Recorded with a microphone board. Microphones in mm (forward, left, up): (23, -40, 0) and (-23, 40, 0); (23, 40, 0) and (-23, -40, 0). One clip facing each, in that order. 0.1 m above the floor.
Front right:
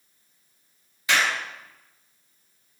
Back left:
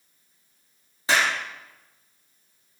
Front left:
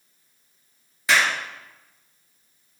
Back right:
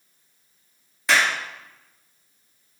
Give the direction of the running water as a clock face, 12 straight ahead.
I don't hear running water.